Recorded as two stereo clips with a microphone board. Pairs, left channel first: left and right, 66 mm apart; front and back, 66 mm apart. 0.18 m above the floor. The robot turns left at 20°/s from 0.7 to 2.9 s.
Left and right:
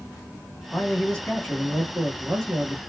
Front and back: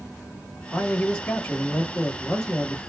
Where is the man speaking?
55° left, 1.3 m; by 2.8 s 15° left, 1.3 m.